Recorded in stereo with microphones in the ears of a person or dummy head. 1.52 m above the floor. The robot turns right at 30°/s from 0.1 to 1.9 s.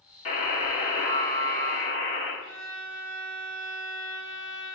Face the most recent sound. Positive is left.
turn(degrees=-65)  # may be behind; listen again after turning